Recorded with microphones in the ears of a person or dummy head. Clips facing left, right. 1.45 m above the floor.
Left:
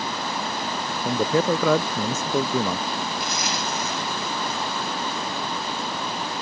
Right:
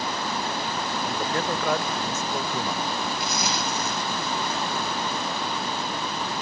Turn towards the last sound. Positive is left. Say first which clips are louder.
# even
turn(degrees=-85)